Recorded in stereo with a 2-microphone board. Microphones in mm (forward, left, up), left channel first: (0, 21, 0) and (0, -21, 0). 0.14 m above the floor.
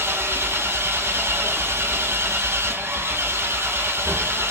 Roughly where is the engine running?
Right.